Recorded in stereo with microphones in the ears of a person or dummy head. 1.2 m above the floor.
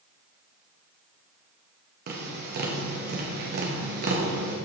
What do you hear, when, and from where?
2.1 s tapping: 50° right (ahead or behind), 1.9 m